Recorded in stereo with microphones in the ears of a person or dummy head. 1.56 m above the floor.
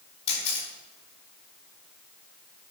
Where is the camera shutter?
35° left (ahead or behind), 5 m.